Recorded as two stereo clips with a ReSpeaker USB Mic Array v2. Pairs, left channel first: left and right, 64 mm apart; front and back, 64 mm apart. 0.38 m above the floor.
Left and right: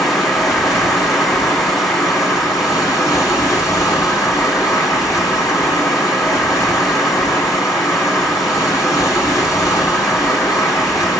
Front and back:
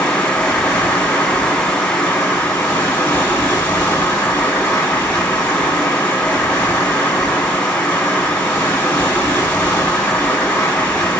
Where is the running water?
60° left, 3.5 m.